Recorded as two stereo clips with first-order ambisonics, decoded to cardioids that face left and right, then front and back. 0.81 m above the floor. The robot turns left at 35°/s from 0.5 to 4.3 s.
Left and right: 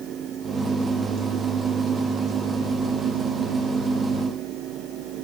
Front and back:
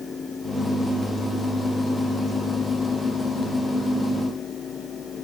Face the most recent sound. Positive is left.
No sound to turn to.